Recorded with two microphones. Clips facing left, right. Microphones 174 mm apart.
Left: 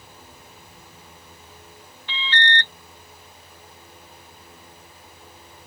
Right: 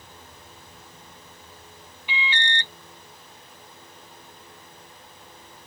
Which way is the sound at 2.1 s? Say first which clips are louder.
Left 3 dB; 10° right (ahead or behind).